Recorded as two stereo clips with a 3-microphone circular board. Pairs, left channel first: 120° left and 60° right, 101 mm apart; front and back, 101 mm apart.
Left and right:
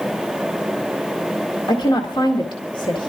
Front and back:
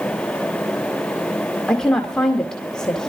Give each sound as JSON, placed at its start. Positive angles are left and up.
{"t": 1.7, "sound": "a woman speaking", "azimuth_deg": 80, "distance_m": 2.0}